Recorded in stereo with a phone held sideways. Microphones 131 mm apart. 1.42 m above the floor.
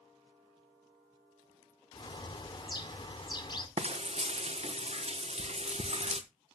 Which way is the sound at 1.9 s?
35° left (ahead or behind).